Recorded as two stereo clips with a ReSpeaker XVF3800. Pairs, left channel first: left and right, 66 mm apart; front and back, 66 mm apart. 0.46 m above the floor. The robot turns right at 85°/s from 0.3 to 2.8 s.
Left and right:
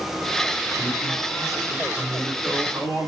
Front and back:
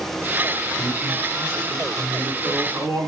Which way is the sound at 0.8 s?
50° left.